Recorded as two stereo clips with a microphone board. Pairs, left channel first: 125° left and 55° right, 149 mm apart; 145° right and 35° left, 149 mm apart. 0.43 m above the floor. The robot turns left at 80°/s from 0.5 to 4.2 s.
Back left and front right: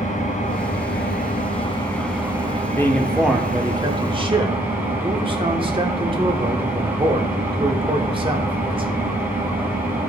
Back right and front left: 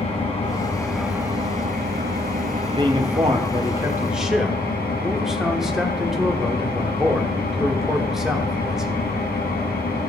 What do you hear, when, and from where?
0.0 s an engine running: 165° left, 2.5 m; by 10.1 s 130° right, 2.5 m
2.7 s a man speaking: 65° left, 1.2 m; by 9.2 s 50° right, 1.2 m